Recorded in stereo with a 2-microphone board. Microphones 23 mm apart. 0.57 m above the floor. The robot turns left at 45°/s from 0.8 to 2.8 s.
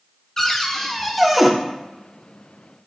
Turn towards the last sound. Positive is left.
turn(degrees=-70)